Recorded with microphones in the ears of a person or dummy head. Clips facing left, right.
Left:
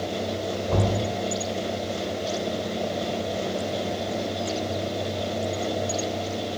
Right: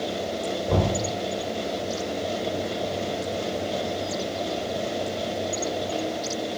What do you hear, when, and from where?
0.7 s knocking: 80° right, 3.5 m